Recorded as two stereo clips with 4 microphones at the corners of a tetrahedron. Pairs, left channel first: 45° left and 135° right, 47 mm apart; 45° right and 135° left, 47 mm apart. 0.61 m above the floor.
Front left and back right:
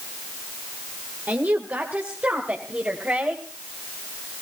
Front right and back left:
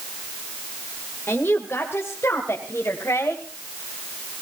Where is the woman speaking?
85° right, 2.0 m; by 3.4 s 75° right, 3.5 m.